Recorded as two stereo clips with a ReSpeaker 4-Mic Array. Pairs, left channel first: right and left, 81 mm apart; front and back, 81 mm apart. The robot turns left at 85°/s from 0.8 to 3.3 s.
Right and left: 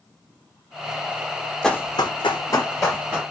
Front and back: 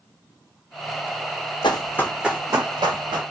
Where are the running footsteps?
5° right, 0.5 m; by 3.2 s 150° left, 1.3 m.